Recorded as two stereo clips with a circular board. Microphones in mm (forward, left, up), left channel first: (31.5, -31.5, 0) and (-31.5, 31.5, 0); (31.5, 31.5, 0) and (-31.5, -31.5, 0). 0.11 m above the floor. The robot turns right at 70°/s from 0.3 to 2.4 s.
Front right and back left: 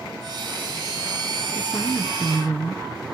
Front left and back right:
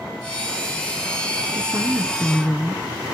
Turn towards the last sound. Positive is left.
turn(degrees=-45)